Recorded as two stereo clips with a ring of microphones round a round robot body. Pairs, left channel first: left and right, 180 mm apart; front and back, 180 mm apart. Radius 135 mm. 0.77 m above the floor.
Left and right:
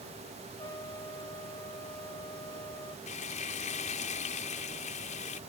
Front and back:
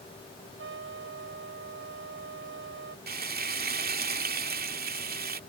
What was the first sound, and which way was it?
A trumpet, 165° left.